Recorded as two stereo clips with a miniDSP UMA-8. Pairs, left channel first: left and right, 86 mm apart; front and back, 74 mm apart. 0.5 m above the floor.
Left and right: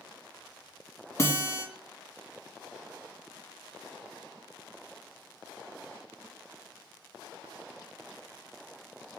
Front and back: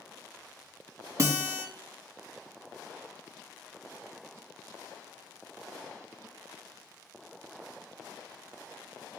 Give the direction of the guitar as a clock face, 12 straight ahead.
7 o'clock.